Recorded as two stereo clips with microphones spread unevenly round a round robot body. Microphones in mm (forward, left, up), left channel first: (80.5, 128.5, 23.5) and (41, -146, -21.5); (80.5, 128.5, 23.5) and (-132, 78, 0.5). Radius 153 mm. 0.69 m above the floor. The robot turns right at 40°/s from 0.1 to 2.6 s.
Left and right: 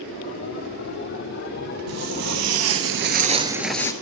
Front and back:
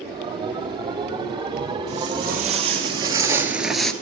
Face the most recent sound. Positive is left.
turn(degrees=80)